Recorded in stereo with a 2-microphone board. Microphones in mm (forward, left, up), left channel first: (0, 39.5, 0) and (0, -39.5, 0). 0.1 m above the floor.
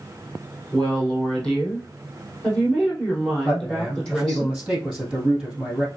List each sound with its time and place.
0.7 s a woman speaking: 10° left (ahead or behind), 3 m
3.5 s a man speaking: 10° right (ahead or behind), 3 m